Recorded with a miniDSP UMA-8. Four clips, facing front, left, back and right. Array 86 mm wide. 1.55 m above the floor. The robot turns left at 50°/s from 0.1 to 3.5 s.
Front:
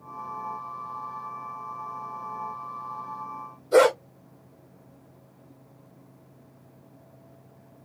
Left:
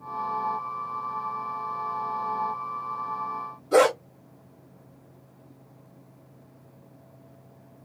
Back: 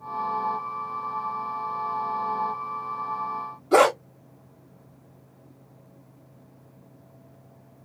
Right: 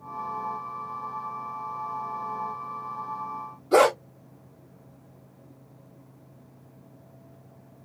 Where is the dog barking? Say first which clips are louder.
Even, even; 170° right, 3.5 m.